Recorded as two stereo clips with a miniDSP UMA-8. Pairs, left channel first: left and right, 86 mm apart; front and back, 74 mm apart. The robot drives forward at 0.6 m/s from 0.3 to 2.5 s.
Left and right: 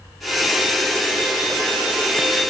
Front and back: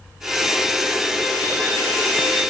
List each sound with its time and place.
Only background noise.